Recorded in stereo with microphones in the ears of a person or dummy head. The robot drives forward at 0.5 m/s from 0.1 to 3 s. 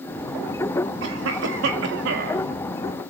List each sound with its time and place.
1.0 s a cough: 80° right, 2 m; by 2.4 s 65° right (ahead or behind), 2.5 m